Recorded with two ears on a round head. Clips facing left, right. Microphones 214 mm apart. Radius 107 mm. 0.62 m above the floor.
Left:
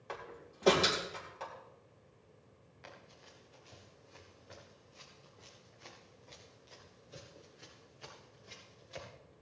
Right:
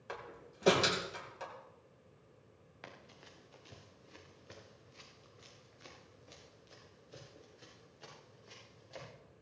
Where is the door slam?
15° right (ahead or behind), 3.5 m.